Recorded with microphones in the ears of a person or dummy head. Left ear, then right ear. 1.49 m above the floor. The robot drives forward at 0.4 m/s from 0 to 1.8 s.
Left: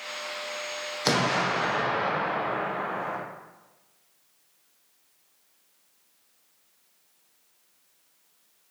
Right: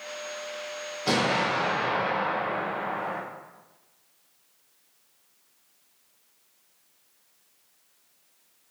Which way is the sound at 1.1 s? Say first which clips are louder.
Even; 80° left.